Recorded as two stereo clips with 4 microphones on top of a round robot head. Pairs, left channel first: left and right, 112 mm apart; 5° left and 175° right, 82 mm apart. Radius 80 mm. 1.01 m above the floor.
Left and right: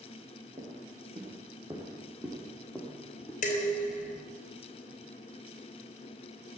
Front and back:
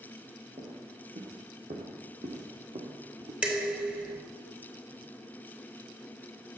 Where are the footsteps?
140° right, 4 m; by 3.3 s 170° left, 3.5 m.